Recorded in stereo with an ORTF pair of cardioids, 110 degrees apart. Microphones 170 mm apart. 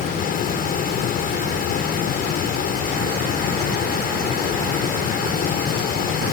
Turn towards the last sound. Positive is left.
turn(degrees=60)